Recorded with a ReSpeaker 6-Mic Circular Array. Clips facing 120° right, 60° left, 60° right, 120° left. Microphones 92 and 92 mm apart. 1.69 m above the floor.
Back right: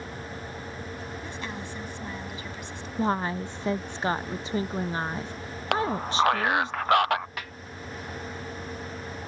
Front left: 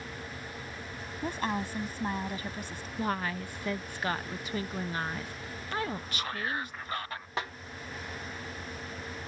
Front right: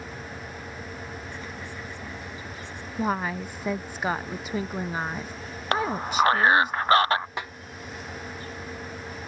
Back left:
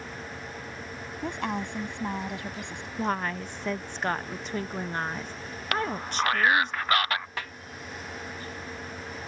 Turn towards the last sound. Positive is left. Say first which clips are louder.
# front left 4 dB, front right 3 dB
turn(degrees=5)